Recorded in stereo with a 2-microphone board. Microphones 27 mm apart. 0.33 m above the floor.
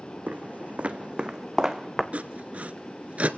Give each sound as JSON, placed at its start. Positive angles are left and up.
{"t": 0.3, "sound": "footsteps", "side_deg": -75, "distance_m": 1.2}
{"t": 2.1, "sound": "sawing", "side_deg": -60, "distance_m": 0.9}